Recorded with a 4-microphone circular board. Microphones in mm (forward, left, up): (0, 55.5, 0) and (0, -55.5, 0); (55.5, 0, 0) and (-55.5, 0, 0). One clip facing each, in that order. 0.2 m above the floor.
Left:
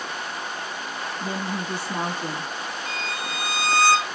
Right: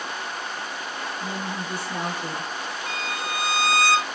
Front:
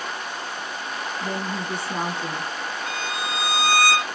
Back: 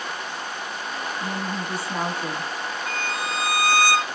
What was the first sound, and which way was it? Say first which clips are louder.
A woman speaking: left 4 dB, front 2 dB; 100° left.